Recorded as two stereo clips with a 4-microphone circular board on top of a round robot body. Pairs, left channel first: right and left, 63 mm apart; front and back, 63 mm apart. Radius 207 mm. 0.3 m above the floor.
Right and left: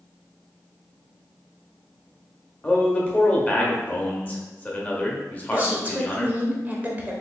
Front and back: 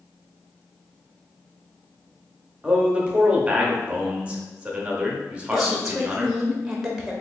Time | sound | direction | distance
2.6 | a man speaking | 130° right | 1.2 m
5.5 | a woman speaking | 100° left | 1.1 m